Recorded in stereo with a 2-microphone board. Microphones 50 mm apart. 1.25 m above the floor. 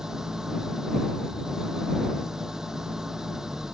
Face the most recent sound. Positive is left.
turn(degrees=-10)  # may be behind; listen again after turning